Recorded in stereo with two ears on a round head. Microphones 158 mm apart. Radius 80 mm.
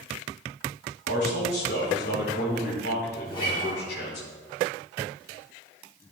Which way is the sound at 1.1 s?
55° left (ahead or behind).